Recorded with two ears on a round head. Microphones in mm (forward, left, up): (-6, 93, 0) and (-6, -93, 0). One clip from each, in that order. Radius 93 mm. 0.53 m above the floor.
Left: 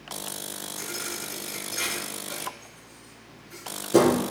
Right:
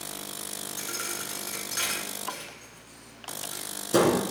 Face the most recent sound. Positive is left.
turn(degrees=-30)  # may be behind; listen again after turning